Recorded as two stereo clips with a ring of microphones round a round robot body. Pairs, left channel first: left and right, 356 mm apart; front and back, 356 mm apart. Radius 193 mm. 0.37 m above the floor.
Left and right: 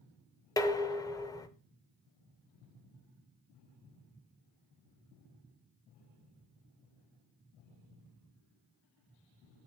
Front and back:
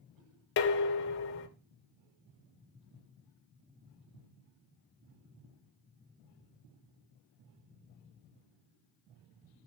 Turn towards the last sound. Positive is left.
turn(degrees=15)